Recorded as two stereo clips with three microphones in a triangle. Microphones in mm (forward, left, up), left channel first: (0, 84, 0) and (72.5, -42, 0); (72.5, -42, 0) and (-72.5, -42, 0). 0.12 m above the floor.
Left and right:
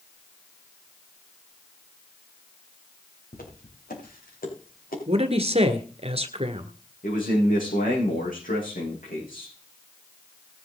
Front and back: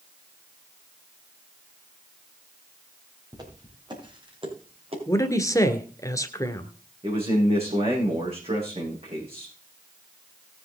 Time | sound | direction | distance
3.3 | footsteps | 120° left | 5 m
5.1 | a man speaking | 60° right | 1.4 m
7.0 | a man speaking | 135° left | 7.5 m